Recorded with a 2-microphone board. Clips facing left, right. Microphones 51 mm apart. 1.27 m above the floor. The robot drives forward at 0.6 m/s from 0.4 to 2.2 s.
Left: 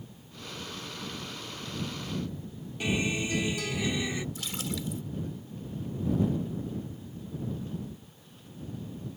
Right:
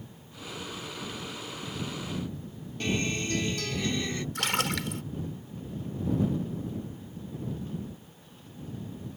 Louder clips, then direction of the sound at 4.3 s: Right 7 dB; 75° right (ahead or behind).